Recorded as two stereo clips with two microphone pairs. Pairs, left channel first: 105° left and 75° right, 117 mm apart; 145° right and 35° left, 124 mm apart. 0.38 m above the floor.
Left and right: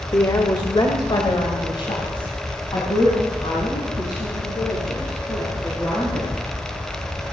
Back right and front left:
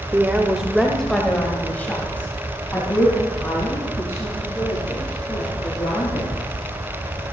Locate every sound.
0.1 s a woman speaking: 85° left, 1.0 m; by 6.3 s 150° left, 5.5 m